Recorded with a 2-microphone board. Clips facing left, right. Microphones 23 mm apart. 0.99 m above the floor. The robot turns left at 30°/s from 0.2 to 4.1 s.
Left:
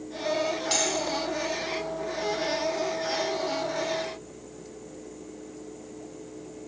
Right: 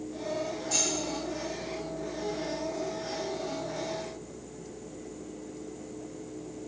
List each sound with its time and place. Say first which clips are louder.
0.7 s cutlery clinking: left 2 dB; 75° left (ahead or behind), 4.5 m; by 0.8 s 80° left, 4.5 m